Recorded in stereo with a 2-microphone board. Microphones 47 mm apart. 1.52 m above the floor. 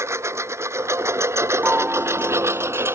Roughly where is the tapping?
No tapping in this recording.